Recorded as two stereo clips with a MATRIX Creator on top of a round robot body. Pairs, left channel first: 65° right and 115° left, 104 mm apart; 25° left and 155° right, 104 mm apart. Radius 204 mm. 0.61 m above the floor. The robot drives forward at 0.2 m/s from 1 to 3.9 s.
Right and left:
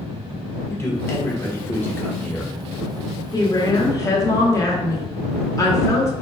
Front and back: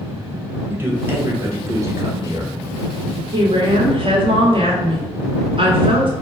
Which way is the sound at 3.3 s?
125° right.